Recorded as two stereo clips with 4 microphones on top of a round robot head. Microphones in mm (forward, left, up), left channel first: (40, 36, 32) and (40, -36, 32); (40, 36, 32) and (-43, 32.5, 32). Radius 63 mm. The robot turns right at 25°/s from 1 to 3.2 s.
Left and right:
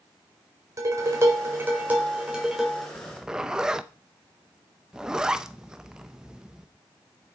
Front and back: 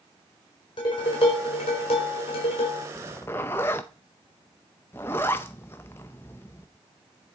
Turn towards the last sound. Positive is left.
turn(degrees=-25)